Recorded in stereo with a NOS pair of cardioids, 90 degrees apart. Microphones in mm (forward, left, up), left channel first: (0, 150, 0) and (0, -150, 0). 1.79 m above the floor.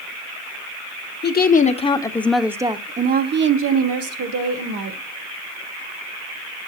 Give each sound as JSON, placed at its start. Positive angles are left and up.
{"t": 1.2, "sound": "a woman speaking", "azimuth_deg": 35, "distance_m": 1.3}